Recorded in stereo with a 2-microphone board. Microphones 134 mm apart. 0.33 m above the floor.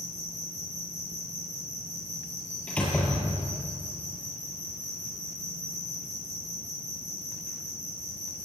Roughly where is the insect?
Left.